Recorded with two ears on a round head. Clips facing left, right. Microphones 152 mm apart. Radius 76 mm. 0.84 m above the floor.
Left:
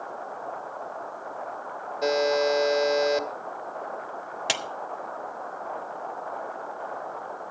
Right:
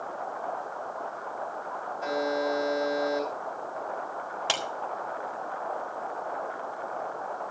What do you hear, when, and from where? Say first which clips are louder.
2.0 s a buzzer: left 6 dB; 80° left, 1.7 m
4.5 s a clap: even; 20° left (ahead or behind), 1.7 m